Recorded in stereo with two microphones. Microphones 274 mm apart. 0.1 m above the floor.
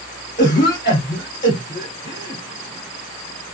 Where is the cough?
30° left (ahead or behind), 1.8 m.